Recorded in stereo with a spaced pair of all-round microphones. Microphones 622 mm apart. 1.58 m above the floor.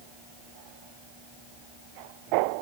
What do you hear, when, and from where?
Only background noise.